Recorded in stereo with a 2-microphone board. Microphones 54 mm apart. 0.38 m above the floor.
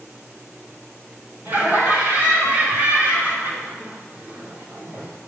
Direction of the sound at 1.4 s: 35° right (ahead or behind).